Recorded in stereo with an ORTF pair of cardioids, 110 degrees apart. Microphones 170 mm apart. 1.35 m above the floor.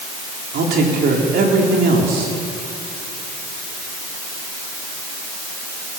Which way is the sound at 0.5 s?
65° right.